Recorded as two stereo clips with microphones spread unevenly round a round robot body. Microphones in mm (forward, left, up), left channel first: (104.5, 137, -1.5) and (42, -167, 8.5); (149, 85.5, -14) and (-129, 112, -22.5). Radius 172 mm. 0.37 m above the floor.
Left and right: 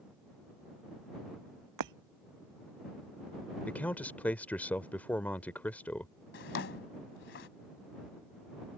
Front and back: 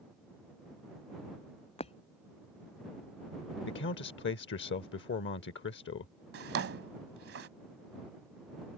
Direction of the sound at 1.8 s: 80° right.